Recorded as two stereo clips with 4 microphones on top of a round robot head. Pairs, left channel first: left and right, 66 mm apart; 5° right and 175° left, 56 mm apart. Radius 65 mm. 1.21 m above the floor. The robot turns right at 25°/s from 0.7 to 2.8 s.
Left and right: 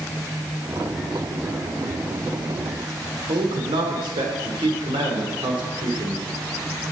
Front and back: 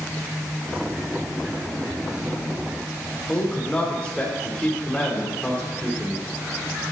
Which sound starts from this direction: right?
A man speaking, at 3.3 s.